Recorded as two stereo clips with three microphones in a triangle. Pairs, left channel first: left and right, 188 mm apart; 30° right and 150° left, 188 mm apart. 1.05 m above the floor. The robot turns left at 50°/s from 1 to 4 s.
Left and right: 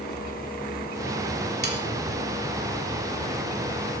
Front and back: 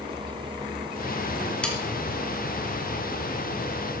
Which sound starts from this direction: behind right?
Sawing, at 1.6 s.